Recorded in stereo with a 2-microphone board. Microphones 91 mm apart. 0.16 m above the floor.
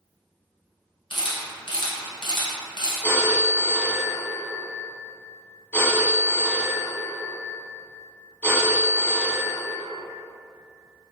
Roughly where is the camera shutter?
Left.